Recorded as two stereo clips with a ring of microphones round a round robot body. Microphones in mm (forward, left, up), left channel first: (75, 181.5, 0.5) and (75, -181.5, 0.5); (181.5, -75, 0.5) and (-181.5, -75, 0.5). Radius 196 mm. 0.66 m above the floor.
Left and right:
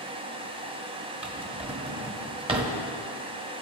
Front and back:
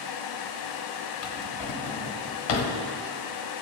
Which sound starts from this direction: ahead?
A drawer, at 1.2 s.